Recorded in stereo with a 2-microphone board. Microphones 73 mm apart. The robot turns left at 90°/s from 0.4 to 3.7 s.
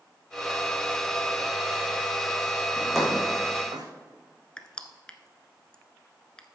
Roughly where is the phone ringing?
I don't hear a phone ringing.